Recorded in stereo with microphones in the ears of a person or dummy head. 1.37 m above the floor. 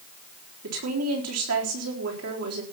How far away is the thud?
No thud in this recording.